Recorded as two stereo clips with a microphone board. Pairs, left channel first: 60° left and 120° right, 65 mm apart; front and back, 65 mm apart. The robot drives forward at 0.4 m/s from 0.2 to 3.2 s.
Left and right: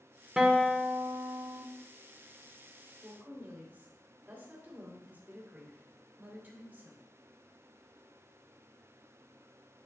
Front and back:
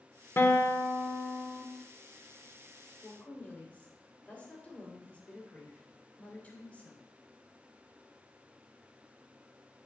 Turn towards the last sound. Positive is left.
turn(degrees=-65)